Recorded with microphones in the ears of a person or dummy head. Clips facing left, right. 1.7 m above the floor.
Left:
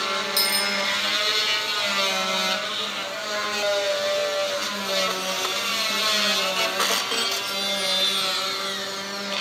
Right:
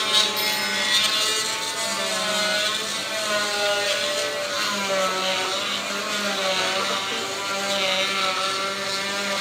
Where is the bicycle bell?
25° left (ahead or behind), 4.5 m.